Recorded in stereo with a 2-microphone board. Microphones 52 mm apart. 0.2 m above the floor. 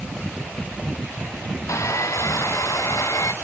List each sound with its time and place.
1.7 s sawing: 85° left